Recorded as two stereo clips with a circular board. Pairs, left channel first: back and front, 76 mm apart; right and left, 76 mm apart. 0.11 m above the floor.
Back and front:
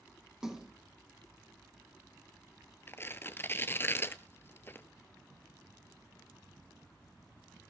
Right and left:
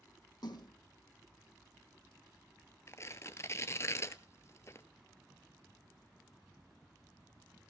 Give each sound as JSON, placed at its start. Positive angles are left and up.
{"t": 0.4, "sound": "a splash", "azimuth_deg": -80, "distance_m": 2.0}
{"t": 2.9, "sound": "tearing paper", "azimuth_deg": -130, "distance_m": 0.8}